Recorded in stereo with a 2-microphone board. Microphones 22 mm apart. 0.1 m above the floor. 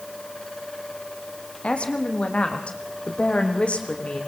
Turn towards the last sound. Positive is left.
turn(degrees=65)  # may be behind; listen again after turning